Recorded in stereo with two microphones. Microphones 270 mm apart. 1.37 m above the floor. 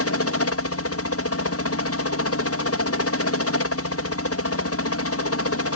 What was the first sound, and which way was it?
A helicopter, 60° left (ahead or behind).